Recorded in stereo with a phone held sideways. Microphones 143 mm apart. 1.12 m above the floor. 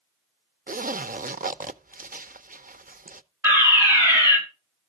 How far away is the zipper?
About 0.5 m.